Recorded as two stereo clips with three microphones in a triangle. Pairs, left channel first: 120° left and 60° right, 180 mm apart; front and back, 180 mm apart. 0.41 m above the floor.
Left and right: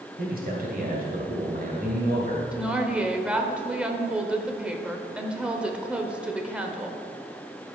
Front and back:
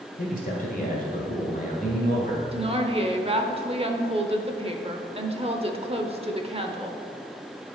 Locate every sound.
0.2 s a man speaking: 30° right, 1.9 m
2.5 s a woman speaking: 140° right, 0.9 m